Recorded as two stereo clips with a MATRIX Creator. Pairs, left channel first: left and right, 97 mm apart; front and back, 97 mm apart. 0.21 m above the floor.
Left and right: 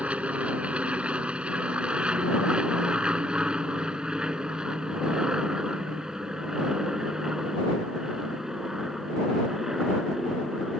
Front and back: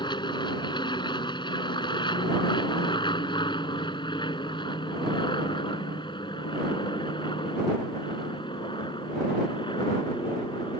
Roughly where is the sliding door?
No sliding door in this recording.